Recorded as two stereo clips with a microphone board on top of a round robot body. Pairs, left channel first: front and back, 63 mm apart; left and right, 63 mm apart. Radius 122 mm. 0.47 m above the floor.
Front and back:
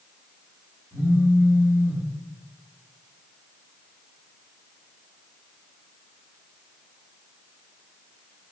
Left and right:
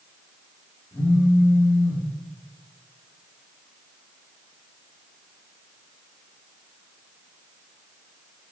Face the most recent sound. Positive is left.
turn(degrees=145)